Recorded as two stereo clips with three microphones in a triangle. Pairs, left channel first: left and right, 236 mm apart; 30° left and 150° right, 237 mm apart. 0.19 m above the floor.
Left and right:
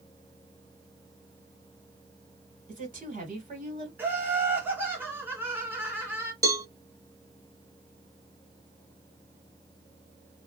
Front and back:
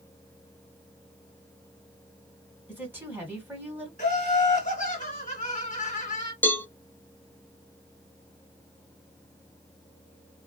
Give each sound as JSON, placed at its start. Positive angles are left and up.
{"t": 2.7, "sound": "a woman speaking", "azimuth_deg": -75, "distance_m": 1.9}
{"t": 4.0, "sound": "laughter", "azimuth_deg": -10, "distance_m": 1.6}
{"t": 6.4, "sound": "a cowbell", "azimuth_deg": -40, "distance_m": 0.6}